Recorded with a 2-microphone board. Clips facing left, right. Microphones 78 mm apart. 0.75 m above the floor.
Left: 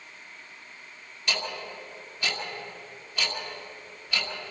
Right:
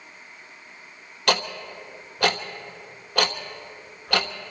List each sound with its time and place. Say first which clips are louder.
1.3 s ticking: right 8 dB; 80° right, 1.1 m